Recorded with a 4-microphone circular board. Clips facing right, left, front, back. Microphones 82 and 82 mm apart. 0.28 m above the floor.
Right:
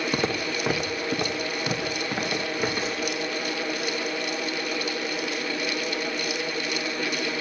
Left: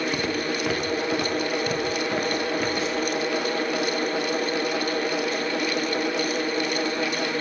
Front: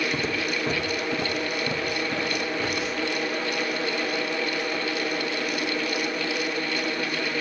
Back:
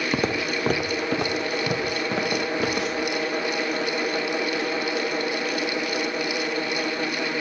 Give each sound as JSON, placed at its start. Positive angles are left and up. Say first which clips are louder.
{"t": 0.1, "sound": "footsteps", "louder": "left 1 dB, back 3 dB", "azimuth_deg": -155, "distance_m": 0.9}